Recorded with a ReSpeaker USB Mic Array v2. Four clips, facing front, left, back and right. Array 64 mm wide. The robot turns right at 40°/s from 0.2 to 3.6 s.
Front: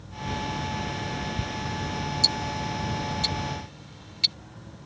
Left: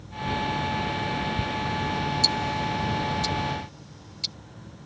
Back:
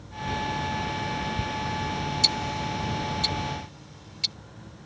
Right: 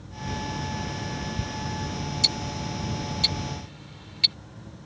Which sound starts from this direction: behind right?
Ticking, at 2.2 s.